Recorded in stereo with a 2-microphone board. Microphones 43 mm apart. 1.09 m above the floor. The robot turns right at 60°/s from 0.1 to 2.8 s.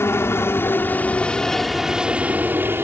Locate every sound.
0.0 s a helicopter: 85° left; by 2.9 s 115° right